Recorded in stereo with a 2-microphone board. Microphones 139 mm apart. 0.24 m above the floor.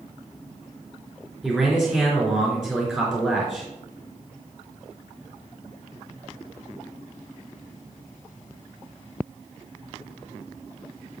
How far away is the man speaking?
About 3.5 m.